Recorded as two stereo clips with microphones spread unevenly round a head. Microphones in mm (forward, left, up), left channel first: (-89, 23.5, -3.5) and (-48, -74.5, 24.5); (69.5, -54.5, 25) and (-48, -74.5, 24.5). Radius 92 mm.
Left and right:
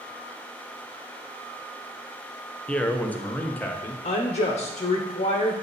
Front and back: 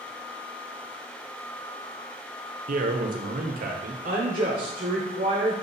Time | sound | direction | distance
2.7 | a man speaking | 165° right | 0.9 m
4.0 | a woman speaking | 145° left | 1.0 m